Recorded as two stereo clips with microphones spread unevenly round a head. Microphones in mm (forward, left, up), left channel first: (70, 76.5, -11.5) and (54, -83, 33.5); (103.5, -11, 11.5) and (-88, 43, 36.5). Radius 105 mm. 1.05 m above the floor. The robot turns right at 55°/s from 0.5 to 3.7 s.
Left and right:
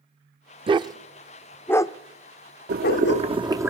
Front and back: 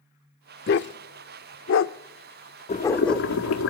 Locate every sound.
0.7 s a dog barking: 60° right, 0.9 m; by 3.3 s 85° left, 0.9 m
2.7 s boiling: 75° right, 2.5 m; by 3.7 s 20° right, 2.5 m